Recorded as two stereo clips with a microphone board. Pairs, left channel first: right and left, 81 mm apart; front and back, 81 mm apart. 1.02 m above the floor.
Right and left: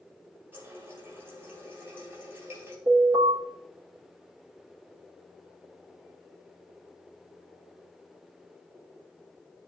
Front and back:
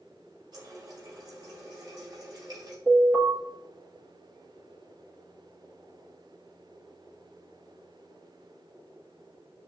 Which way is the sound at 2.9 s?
115° left.